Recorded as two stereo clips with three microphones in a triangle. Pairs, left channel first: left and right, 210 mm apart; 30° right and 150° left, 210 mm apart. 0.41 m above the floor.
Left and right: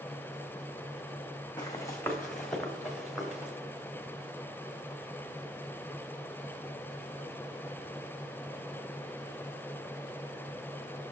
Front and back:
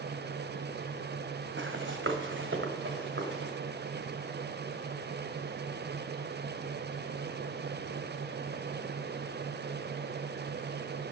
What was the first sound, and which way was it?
Running footsteps, 160° left.